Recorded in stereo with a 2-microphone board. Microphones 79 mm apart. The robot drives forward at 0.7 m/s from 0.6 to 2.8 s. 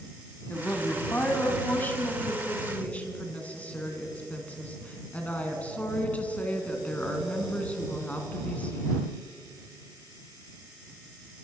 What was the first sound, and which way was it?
A woman speaking, 25° left (ahead or behind).